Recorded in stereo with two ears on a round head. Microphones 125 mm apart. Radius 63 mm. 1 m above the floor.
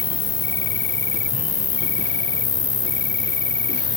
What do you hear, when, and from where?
0.0 s an insect: 20° left (ahead or behind)